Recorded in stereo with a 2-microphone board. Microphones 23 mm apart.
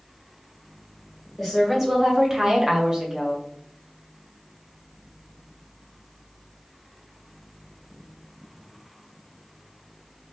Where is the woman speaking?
15° right (ahead or behind), 1.1 m; by 3.4 s 20° right (ahead or behind), 1.3 m.